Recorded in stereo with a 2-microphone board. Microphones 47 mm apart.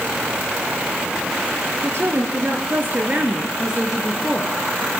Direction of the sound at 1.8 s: 60° right (ahead or behind).